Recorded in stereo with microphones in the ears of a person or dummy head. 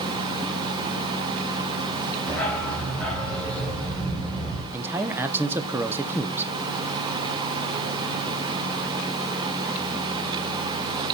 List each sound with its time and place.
2.3 s a dog barking: 10° left (ahead or behind), 2.5 m
4.7 s a man speaking: 10° right (ahead or behind), 0.8 m